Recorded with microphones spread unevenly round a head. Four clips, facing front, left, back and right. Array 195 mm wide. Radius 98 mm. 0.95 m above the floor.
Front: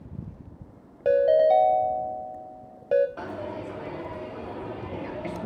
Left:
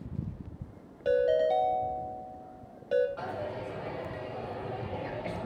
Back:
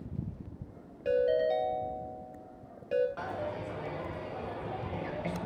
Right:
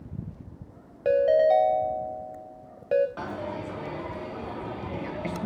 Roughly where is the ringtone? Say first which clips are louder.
Right 5 dB, front 9 dB; ahead right.